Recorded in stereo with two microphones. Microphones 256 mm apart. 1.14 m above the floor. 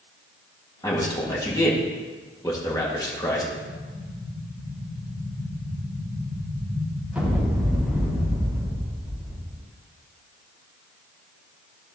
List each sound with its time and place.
0.8 s a man speaking: 15° left (ahead or behind), 2 m
3.6 s an explosion: 5° right (ahead or behind), 4.5 m